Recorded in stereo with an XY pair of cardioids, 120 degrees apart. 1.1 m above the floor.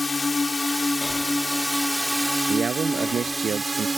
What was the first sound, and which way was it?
A drone, 20° left.